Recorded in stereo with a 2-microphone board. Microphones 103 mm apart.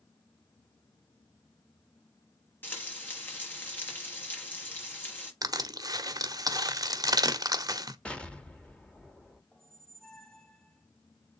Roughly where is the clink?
I don't hear a clink.